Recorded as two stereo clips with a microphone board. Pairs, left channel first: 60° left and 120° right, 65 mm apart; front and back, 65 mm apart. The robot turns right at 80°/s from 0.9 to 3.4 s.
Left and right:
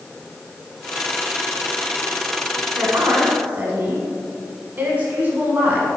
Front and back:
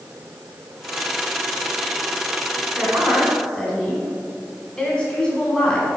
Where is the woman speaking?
120° right, 1.3 m; by 5.9 s 70° right, 1.3 m.